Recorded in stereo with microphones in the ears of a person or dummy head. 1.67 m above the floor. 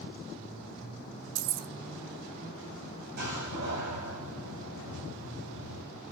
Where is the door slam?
60° right (ahead or behind), 8.5 m.